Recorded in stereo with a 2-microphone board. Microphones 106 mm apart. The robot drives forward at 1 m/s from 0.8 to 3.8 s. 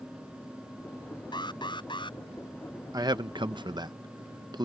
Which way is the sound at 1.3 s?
45° left (ahead or behind).